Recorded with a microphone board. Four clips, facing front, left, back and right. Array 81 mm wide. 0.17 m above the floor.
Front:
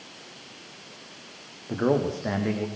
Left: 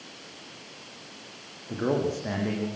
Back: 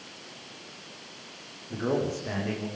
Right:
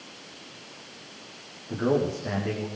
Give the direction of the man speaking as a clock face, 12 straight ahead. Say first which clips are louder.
Right 2 dB, front 4 dB; 12 o'clock.